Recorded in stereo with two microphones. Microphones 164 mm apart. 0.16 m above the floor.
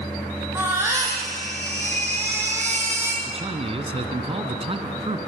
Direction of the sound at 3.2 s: 35° right (ahead or behind).